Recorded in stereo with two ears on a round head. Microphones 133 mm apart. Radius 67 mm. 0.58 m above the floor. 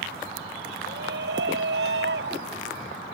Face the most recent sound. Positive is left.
turn(degrees=-75)  # may be behind; listen again after turning